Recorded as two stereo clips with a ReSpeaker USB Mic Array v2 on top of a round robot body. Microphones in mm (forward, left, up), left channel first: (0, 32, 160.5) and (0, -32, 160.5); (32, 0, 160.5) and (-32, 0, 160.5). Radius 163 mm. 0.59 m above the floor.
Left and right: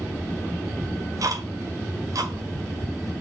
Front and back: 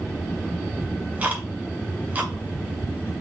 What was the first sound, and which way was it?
Ticking, 115° right.